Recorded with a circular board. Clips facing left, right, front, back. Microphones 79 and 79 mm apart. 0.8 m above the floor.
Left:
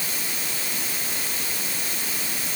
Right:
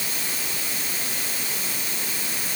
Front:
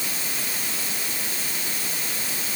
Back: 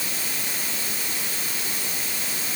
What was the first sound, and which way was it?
Only background noise.